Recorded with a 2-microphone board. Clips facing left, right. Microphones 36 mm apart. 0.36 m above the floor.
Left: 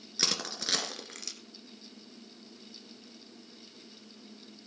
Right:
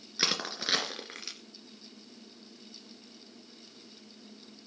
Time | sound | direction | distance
0.2 | crushing | 20° right (ahead or behind) | 2.5 m